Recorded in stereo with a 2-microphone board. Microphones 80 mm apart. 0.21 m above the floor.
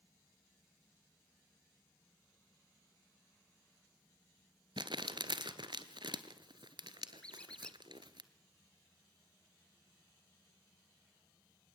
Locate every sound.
4.8 s crumpling: 75° right (ahead or behind), 1.1 m
7.2 s a squeak: 10° left (ahead or behind), 1.1 m